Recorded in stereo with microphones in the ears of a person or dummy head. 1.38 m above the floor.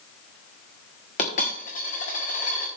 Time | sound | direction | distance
1.2 | a dropped coin | 35° left (ahead or behind) | 1.2 m